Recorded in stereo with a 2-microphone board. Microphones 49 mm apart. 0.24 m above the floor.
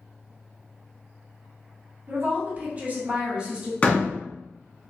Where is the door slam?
30° left (ahead or behind), 1.6 m.